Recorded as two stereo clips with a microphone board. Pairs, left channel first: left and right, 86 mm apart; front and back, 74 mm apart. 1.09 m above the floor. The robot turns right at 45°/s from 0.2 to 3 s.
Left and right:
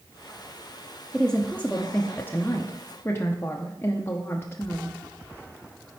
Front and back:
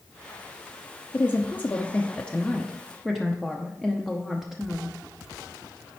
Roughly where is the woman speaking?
Ahead.